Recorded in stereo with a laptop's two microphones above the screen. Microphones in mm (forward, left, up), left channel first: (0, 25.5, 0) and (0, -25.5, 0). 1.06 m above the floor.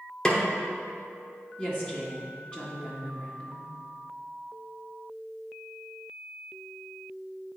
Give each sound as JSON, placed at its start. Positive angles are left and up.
{"t": 0.2, "sound": "a snare drum", "side_deg": 15, "distance_m": 0.8}
{"t": 1.6, "sound": "a woman speaking", "side_deg": 25, "distance_m": 1.8}